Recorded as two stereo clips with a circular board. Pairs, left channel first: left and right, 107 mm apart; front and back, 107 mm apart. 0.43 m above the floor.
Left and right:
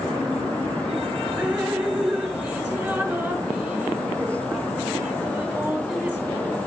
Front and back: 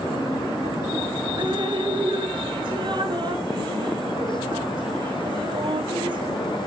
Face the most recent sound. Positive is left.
turn(degrees=-165)